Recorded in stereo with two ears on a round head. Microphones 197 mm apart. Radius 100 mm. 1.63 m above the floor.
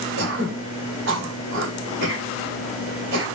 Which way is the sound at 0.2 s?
65° right (ahead or behind).